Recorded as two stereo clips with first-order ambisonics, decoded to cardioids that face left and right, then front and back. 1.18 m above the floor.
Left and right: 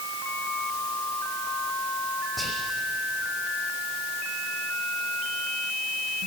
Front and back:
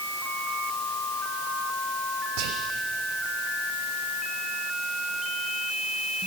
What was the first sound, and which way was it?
Whispering, straight behind.